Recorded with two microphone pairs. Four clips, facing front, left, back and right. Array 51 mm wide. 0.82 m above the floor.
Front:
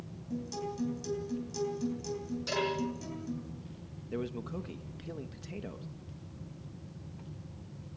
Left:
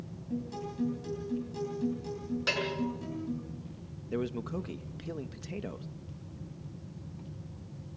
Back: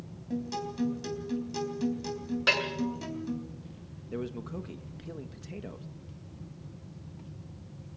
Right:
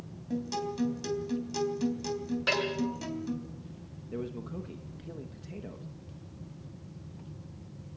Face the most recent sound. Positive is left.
turn(degrees=80)